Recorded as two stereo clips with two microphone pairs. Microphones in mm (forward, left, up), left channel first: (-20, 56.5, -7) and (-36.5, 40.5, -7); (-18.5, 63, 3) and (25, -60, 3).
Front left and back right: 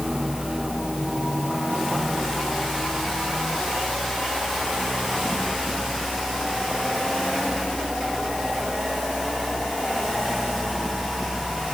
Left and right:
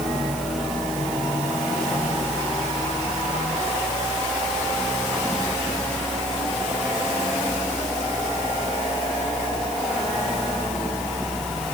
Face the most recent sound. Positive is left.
No sound to turn to.